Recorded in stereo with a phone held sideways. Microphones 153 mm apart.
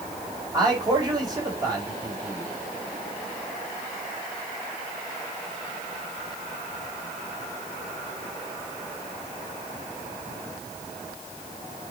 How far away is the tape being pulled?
No tape being pulled in this recording.